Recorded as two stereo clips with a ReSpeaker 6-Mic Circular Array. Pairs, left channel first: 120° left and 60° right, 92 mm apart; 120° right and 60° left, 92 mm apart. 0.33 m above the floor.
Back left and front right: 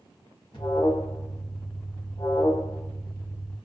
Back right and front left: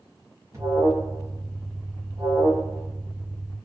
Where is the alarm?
115° left, 1.1 m.